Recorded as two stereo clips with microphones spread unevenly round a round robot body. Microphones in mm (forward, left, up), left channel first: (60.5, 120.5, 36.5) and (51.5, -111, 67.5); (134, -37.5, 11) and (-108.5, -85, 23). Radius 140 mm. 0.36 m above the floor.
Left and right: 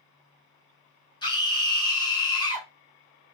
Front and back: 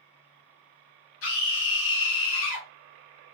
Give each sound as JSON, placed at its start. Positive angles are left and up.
{"t": 1.2, "sound": "a scream", "azimuth_deg": 25, "distance_m": 3.0}